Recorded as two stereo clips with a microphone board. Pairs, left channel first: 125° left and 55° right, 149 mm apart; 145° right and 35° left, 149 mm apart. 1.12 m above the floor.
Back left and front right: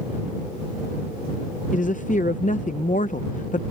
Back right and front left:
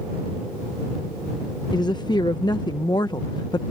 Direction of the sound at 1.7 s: 155° left.